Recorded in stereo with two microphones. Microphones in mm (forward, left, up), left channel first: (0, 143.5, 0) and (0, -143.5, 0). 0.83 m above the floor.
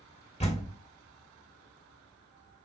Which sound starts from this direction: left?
A door slam, at 0.4 s.